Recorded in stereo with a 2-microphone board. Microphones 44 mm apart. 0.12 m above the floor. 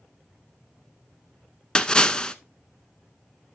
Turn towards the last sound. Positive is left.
turn(degrees=20)  # may be behind; listen again after turning